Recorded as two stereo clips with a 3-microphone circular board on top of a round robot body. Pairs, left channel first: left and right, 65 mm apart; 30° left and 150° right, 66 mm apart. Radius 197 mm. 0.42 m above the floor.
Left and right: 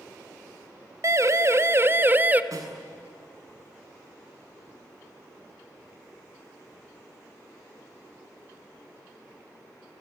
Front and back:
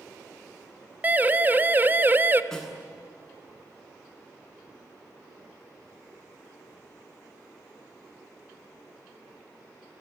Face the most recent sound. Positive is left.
turn(degrees=-55)